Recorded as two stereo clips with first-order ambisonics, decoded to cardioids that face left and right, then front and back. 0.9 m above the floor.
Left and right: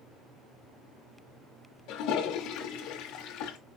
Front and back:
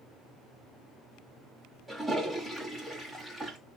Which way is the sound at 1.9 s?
95° left.